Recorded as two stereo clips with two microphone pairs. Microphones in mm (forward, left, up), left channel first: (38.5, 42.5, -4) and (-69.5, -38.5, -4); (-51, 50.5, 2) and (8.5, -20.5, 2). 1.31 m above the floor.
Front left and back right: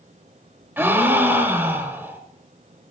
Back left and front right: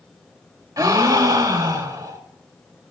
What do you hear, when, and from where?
0.8 s a gasp: 75° right, 1.3 m